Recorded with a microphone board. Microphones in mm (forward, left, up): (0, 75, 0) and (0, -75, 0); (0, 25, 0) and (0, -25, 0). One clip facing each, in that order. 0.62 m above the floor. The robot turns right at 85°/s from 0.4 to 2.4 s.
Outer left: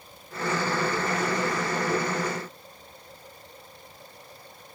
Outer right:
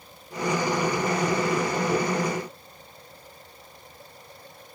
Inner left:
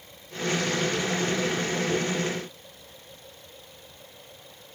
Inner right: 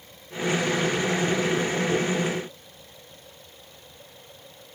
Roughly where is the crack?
No crack in this recording.